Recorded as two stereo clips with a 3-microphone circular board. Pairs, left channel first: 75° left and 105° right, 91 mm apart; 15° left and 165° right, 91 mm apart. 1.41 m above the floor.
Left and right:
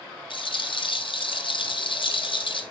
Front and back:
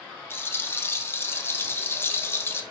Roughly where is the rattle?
Left.